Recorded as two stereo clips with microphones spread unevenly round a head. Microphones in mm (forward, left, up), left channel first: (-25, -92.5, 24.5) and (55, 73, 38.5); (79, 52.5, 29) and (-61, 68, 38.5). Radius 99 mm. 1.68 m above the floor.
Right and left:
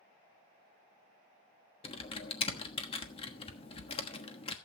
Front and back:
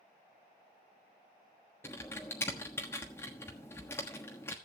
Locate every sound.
1.8 s typing on a keyboard: 75° right, 1.2 m